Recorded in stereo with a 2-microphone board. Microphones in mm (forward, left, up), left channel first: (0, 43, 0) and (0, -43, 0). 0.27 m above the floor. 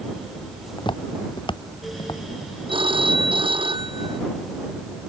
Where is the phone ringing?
75° right (ahead or behind).